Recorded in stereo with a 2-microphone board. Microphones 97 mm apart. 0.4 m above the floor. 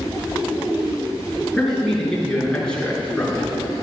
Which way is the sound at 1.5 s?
5° left (ahead or behind).